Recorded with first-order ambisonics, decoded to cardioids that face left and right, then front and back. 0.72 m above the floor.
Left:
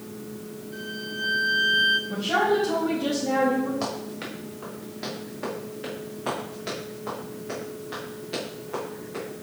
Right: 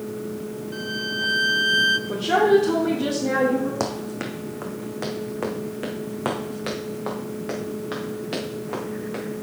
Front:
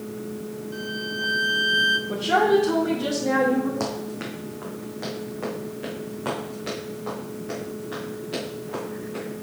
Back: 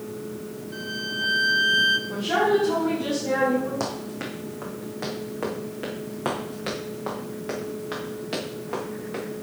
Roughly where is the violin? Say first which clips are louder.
Right 6 dB, back 1 dB; right.